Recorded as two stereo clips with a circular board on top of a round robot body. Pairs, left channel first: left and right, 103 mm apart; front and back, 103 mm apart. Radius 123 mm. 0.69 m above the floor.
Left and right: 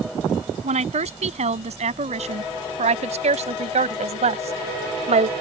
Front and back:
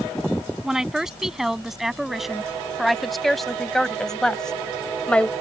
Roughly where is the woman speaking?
Right.